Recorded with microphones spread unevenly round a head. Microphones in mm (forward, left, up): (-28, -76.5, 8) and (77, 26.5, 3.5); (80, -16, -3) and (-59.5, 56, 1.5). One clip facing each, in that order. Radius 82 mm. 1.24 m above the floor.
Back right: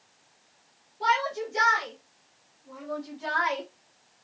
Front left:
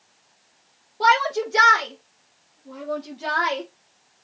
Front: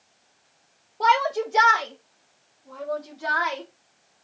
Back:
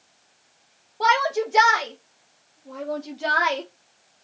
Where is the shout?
65° left, 2 m; by 3.6 s 110° left, 1.4 m.